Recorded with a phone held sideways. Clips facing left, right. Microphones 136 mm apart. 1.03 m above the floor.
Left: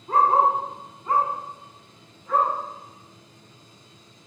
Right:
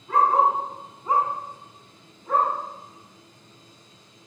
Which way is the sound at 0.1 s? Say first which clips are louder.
Left 1 dB; 40° left (ahead or behind).